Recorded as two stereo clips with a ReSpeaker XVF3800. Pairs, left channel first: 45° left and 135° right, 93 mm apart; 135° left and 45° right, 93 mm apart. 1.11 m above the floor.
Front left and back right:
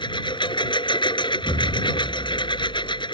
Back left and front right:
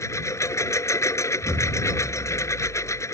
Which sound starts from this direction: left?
A lawn mower, at 0.0 s.